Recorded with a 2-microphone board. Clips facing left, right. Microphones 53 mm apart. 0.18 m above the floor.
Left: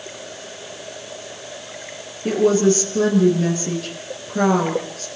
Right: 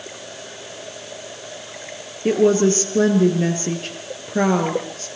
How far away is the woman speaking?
About 3 m.